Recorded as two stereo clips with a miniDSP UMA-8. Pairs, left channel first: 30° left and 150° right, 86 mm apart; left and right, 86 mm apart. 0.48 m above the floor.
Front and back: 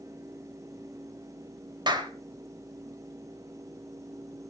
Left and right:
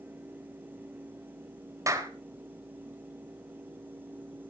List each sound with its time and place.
1.9 s a clap: 135° right, 1.8 m